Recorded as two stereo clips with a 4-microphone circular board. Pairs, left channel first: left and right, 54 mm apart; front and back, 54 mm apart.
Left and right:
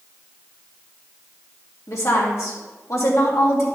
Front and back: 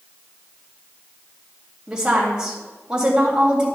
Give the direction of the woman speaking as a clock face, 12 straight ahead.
8 o'clock.